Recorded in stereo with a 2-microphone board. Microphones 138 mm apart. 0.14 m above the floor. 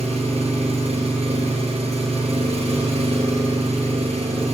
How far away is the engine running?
About 1.6 m.